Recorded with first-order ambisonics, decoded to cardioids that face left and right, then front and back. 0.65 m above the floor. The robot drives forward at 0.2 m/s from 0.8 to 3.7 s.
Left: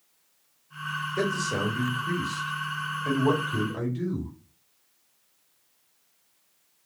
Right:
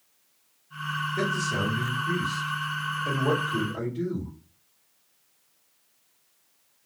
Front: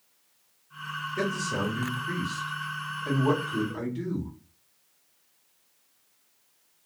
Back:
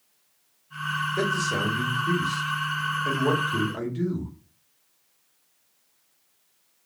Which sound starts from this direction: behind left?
A man speaking, at 1.2 s.